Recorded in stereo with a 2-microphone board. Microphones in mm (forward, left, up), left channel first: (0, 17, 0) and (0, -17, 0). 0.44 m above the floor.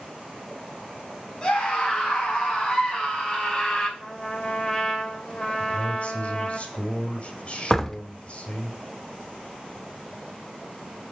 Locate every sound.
1.4 s a scream: 30° left (ahead or behind), 4.5 m
4.0 s a trumpet: 30° left (ahead or behind), 1.7 m
5.6 s a man speaking: 40° left (ahead or behind), 2 m
7.7 s a door slam: 15° left (ahead or behind), 0.7 m